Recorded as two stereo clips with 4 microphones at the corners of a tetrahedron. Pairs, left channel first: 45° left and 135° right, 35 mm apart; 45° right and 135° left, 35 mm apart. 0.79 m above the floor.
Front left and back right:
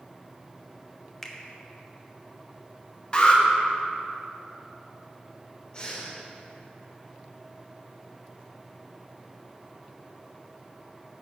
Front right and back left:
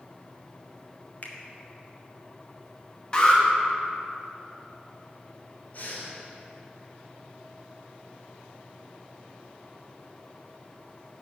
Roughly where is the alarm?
Ahead.